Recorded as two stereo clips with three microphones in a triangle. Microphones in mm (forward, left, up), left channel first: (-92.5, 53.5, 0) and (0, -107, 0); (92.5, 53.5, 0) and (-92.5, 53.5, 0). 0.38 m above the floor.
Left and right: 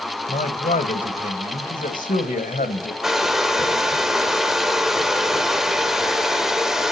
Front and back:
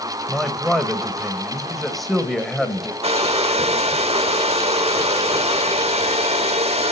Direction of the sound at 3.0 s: 145° right.